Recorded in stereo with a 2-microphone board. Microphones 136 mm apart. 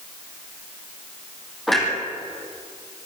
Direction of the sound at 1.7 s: Centre (ahead or behind).